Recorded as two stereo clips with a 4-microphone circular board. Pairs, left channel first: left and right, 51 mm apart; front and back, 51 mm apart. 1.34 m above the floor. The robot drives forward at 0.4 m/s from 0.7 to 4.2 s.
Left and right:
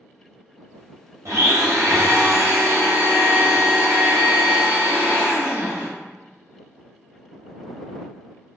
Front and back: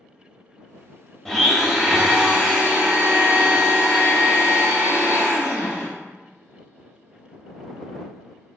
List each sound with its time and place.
1.2 s a blender: 80° right, 0.8 m; by 5.9 s 145° right, 1.3 m